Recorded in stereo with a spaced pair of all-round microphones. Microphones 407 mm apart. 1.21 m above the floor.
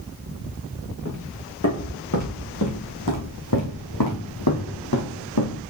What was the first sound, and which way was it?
Footsteps, 40° left (ahead or behind).